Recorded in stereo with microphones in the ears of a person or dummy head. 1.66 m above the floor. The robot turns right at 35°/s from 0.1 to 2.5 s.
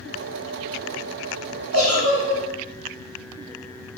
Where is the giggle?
65° right (ahead or behind), 1.4 m; by 2.4 s 60° right (ahead or behind), 1.4 m.